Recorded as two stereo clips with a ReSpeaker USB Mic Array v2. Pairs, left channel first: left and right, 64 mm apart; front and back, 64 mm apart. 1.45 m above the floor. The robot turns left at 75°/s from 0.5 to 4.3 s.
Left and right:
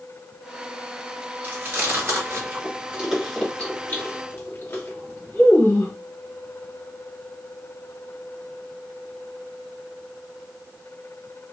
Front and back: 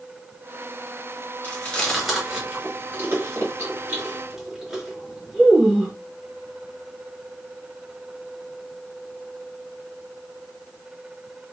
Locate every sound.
1.4 s chewing: 40° right, 1.4 m; by 5.9 s 105° left, 1.4 m